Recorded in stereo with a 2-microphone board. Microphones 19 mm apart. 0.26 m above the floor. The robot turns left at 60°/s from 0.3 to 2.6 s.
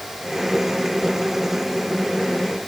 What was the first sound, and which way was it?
Only background noise.